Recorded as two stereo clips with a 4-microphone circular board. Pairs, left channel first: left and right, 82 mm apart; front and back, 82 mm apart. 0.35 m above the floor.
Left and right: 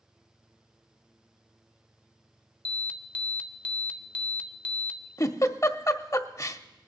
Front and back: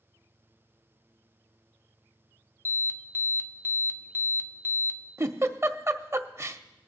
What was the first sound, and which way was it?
An alarm, 30° left.